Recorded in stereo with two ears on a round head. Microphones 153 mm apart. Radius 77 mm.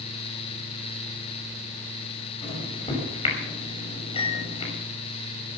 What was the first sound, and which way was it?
A microwave, 35° left (ahead or behind).